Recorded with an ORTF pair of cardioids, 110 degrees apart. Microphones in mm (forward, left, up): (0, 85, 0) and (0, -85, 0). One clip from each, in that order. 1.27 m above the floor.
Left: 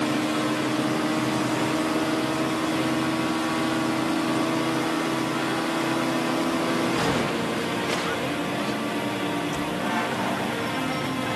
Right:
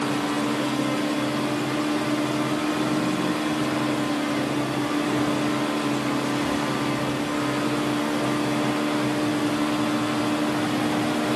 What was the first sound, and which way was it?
Only background noise.